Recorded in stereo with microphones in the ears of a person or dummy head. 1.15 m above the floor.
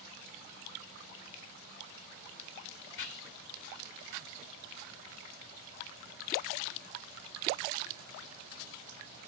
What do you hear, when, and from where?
3.0 s whispering: 70° left (ahead or behind), 2.5 m